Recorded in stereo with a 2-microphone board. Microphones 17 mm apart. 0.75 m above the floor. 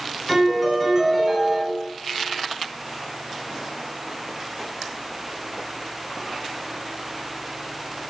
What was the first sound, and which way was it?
A piano, 5° right (ahead or behind).